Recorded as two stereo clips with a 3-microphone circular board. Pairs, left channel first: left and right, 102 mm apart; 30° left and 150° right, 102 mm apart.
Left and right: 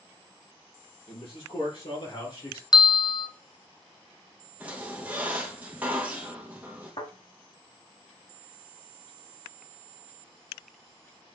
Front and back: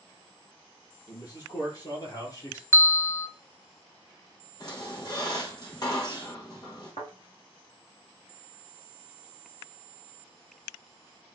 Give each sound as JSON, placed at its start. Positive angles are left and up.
{"t": 1.1, "sound": "a man speaking", "azimuth_deg": 75, "distance_m": 3.5}
{"t": 2.7, "sound": "a bell", "azimuth_deg": 85, "distance_m": 0.5}
{"t": 4.6, "sound": "a squeak", "azimuth_deg": -15, "distance_m": 2.0}
{"t": 7.0, "sound": "a thud", "azimuth_deg": 65, "distance_m": 3.5}